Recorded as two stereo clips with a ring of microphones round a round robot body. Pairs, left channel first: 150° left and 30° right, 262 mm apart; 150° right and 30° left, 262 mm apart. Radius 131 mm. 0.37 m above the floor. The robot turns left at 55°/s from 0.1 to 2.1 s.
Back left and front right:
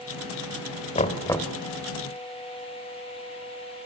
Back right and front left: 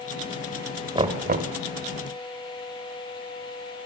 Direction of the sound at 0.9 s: 95° left.